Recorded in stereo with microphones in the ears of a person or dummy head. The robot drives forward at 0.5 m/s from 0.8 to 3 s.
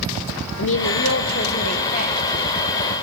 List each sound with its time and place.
0.6 s a woman speaking: 55° left (ahead or behind), 0.9 m; by 2.5 s 30° left (ahead or behind), 1.4 m